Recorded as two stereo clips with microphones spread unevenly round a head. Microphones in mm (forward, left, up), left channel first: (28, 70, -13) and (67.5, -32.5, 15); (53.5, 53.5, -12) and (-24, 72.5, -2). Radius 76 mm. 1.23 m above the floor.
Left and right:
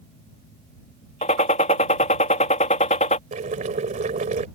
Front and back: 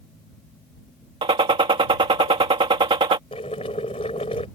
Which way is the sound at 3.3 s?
60° right.